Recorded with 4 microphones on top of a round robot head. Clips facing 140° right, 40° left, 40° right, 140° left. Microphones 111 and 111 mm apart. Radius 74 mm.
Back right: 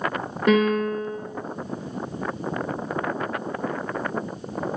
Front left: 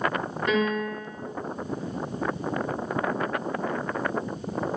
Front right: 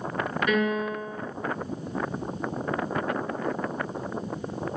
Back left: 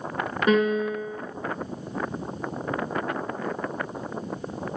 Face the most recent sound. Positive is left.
turn(degrees=-160)